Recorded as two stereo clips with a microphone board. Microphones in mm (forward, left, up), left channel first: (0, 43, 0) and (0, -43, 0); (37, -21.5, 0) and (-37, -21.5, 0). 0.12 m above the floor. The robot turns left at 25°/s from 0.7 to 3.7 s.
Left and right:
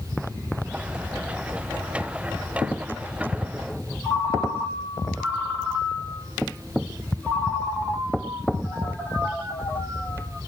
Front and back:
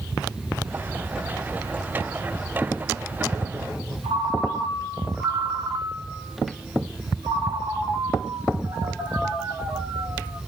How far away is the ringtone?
About 3 m.